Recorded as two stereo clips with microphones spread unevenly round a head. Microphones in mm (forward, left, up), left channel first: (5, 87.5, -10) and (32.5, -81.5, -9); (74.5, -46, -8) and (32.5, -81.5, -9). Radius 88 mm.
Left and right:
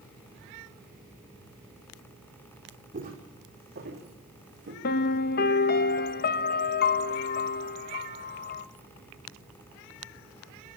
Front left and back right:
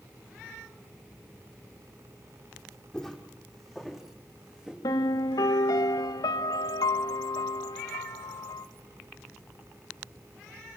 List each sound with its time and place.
2.9 s footsteps: 40° right, 3.5 m; by 4.7 s 60° right, 4.5 m
4.8 s a piano: 65° left, 0.8 m